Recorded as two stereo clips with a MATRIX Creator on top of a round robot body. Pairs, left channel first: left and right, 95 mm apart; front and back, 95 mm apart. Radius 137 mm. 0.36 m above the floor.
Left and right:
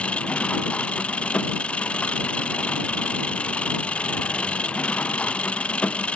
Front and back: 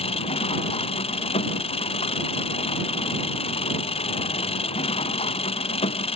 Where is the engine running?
10° left.